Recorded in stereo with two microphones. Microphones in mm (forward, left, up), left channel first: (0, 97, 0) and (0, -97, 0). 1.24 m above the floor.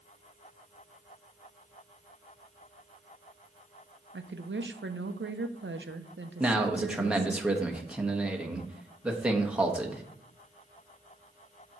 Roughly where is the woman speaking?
Right.